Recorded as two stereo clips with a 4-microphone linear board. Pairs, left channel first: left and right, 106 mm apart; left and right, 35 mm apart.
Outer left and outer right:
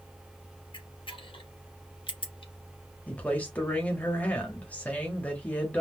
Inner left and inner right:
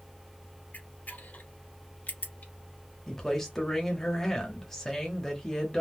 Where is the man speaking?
15° left (ahead or behind), 1.1 m.